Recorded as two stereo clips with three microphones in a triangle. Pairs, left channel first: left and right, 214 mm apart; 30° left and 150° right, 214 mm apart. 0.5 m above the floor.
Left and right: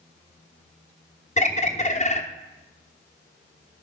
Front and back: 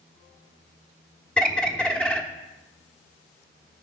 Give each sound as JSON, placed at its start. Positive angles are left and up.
{"t": 1.4, "sound": "a bird", "azimuth_deg": 110, "distance_m": 0.9}